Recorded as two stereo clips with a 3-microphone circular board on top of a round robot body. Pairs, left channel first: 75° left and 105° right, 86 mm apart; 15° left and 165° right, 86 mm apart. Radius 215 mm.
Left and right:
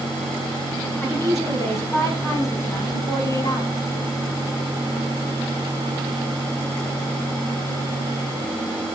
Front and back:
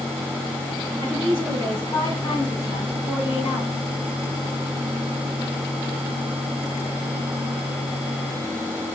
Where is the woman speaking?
15° left, 7 m; by 3.8 s 40° left, 6 m.